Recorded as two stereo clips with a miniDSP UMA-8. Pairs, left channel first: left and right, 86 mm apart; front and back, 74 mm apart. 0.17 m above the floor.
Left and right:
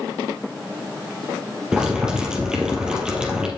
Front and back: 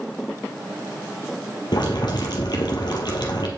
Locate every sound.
1.7 s boiling: 10° right, 2.5 m